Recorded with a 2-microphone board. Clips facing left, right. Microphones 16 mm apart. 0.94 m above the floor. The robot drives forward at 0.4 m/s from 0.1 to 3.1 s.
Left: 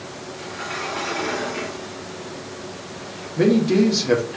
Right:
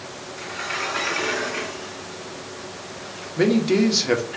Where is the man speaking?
25° right (ahead or behind), 0.9 m.